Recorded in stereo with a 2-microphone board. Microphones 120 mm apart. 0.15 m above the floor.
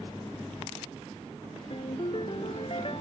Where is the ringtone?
50° left (ahead or behind).